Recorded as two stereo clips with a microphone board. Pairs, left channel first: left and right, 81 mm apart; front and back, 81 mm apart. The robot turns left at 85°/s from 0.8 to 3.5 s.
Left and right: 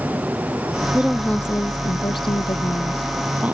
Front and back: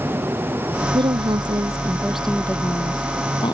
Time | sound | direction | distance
0.9 | a woman speaking | 160° right | ?